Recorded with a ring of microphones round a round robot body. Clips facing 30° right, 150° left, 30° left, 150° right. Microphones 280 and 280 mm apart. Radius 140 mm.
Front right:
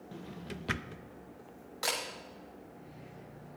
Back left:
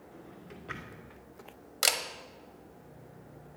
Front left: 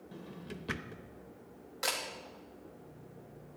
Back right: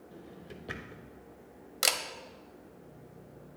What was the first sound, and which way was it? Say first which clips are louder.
A drawer: front right 6 dB, front left 3 dB; 35° right.